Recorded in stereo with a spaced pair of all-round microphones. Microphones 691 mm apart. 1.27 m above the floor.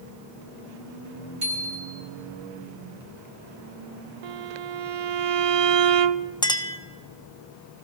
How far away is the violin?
About 0.5 m.